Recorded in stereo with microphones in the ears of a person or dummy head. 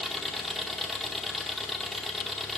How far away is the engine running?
About 0.7 m.